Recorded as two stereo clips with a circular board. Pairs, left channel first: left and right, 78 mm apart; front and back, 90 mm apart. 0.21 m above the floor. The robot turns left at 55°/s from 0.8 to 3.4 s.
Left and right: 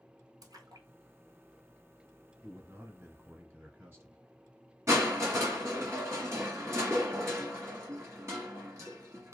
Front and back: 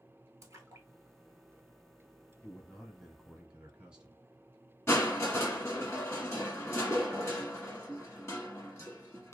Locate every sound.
0.4 s a splash: 125° right, 0.6 m; by 0.9 s 130° right, 0.6 m
2.4 s a man speaking: 50° right, 1.1 m; by 4.2 s 105° right, 1.1 m
4.9 s crushing: 50° right, 1.5 m